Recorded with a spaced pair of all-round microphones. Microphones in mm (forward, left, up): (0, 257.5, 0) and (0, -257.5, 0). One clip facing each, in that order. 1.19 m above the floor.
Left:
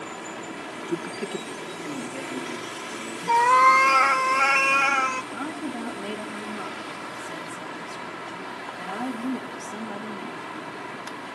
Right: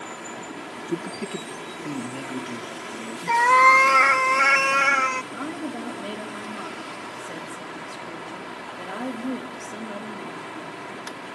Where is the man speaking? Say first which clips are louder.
Even; 20° right (ahead or behind), 0.6 m; by 3.2 s 35° right (ahead or behind), 1.9 m.